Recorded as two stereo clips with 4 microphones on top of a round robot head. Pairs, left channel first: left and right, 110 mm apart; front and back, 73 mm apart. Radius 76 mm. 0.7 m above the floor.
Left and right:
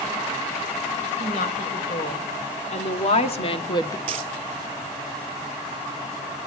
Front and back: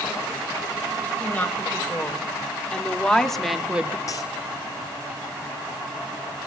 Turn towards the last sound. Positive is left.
turn(degrees=-55)